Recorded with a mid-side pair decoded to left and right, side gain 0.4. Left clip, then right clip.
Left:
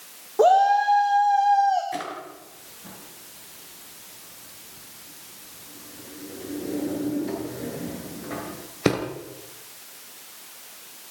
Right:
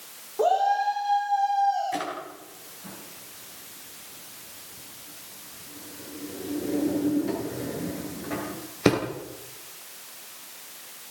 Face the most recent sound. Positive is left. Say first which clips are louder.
# right 1 dB
turn(degrees=0)